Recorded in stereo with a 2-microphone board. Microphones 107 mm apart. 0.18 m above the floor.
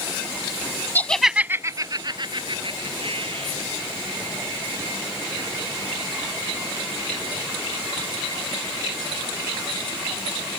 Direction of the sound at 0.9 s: 20° left (ahead or behind).